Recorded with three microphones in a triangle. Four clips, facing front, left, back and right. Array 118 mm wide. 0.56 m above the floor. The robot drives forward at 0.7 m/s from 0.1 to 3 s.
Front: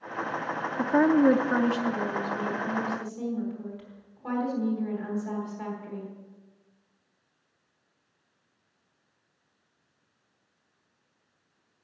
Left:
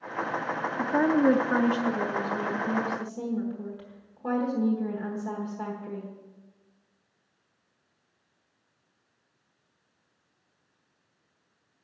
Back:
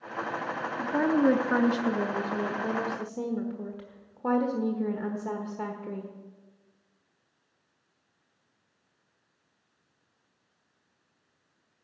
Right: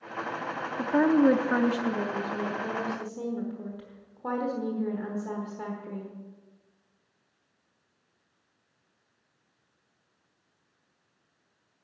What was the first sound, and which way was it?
A woman speaking, 5° right.